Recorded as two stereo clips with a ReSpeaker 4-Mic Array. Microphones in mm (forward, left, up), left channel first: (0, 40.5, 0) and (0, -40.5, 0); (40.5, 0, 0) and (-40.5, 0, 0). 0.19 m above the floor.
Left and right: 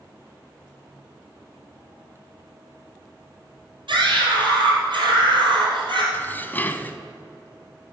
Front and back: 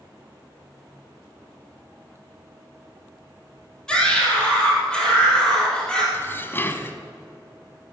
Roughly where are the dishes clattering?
Ahead left.